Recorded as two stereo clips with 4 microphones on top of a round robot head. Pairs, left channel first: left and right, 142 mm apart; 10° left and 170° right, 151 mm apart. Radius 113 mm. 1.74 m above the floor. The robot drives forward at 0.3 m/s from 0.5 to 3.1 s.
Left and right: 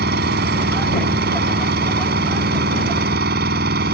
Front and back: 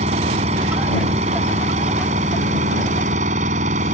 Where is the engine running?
115° right.